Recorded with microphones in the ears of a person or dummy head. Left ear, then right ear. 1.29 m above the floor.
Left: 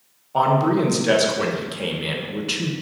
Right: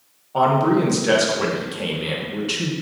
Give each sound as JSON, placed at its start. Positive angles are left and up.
{"t": 0.3, "sound": "a man speaking", "side_deg": 10, "distance_m": 0.5}